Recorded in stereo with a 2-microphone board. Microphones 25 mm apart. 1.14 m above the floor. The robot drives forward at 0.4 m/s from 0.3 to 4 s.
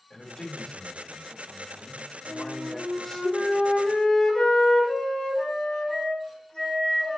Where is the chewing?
No chewing in this recording.